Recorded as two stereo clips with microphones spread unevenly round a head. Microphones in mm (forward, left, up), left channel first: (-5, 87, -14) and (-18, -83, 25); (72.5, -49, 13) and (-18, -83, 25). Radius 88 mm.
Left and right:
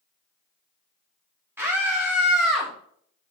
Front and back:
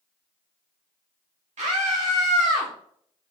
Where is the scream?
175° right, 2.5 m; by 2.7 s 175° left, 3 m.